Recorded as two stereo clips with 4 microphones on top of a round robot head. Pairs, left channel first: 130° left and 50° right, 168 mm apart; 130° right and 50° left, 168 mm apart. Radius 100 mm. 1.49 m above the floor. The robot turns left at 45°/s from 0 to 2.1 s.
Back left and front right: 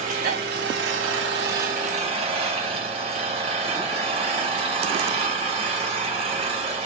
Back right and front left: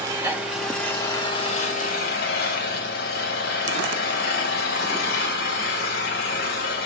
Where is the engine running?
10° right, 1.8 m; by 6.9 s 105° right, 1.8 m.